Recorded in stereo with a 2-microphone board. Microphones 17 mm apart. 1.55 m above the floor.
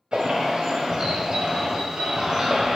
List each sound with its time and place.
0.1 s a bird: 65° right (ahead or behind), 0.7 m